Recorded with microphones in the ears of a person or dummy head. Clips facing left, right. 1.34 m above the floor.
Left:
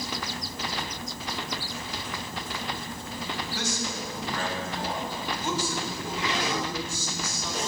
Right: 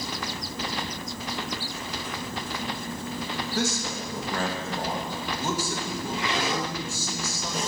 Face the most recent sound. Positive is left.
turn(degrees=-45)  # may be behind; listen again after turning